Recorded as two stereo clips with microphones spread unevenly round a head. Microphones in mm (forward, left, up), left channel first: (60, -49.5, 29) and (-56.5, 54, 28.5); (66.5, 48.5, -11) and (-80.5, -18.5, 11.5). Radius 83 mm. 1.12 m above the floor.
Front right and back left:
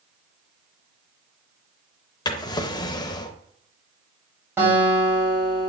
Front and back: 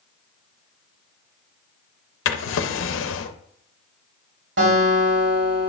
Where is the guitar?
145° right, 3.5 m.